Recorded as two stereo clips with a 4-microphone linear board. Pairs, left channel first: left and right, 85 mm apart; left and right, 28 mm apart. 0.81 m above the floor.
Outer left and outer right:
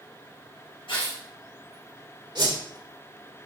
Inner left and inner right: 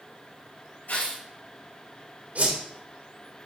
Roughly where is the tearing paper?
Left.